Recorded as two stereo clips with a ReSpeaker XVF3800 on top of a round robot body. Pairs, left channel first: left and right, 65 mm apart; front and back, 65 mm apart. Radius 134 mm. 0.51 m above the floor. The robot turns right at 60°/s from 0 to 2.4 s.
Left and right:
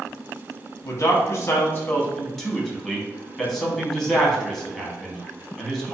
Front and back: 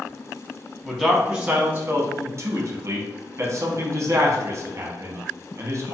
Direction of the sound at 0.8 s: 80° left.